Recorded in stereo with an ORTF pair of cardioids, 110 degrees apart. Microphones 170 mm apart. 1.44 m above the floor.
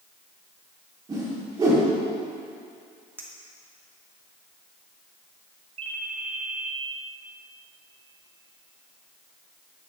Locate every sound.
1.1 s a whoosh: 20° right, 4 m
3.2 s a clink: 10° right, 1.6 m
5.8 s a ringtone: 35° right, 1.2 m